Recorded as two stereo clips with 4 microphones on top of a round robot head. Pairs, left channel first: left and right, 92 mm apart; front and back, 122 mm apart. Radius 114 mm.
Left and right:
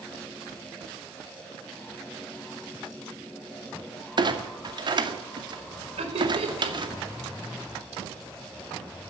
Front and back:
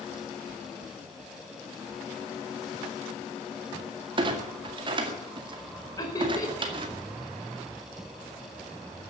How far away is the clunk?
About 2 m.